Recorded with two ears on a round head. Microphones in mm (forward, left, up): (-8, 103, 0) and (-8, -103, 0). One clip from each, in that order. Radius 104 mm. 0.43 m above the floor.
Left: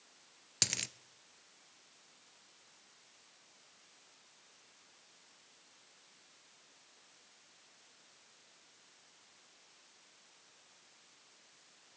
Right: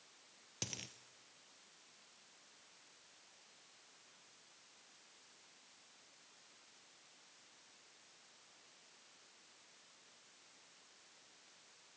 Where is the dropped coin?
40° left (ahead or behind), 0.6 m.